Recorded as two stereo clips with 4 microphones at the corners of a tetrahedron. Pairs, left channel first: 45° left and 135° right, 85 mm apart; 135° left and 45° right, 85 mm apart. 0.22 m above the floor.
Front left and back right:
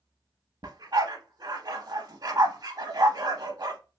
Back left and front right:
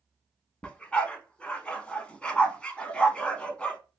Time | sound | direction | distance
0.6 | a dog barking | 155° right | 0.6 m